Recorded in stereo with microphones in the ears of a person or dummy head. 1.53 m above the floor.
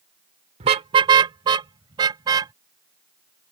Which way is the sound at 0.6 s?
30° right (ahead or behind).